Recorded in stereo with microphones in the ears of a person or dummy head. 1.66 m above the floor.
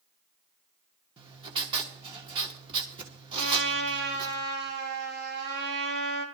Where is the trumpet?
65° right (ahead or behind), 6.5 m.